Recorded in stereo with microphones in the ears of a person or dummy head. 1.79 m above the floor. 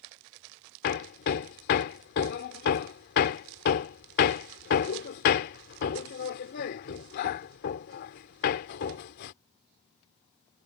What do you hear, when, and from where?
0.8 s hammering: 50° left (ahead or behind)